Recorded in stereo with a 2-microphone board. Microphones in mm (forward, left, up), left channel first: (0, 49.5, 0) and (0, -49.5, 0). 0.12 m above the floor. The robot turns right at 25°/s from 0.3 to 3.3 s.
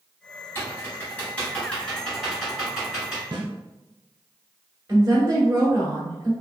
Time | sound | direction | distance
0.6 | typing on a keyboard | 25° left (ahead or behind) | 1.8 m
3.3 | a snare drum | 50° right (ahead or behind) | 1.2 m
4.9 | a woman speaking | 30° right (ahead or behind) | 1.2 m